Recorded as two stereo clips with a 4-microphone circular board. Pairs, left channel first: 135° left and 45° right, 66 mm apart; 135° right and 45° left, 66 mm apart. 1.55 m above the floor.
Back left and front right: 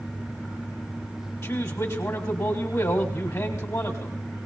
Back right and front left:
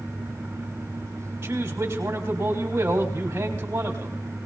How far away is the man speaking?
About 3.5 m.